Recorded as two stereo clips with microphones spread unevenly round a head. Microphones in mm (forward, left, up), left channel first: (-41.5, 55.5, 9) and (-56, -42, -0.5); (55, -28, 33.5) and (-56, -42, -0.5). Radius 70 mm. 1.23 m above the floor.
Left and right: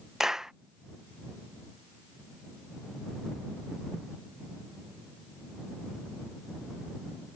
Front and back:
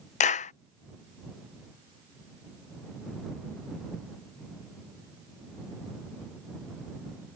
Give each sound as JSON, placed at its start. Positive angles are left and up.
{"t": 0.2, "sound": "a clap", "azimuth_deg": -15}